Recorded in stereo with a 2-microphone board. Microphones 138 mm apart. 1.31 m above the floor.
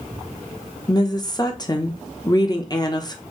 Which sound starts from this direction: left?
A woman speaking, at 0.9 s.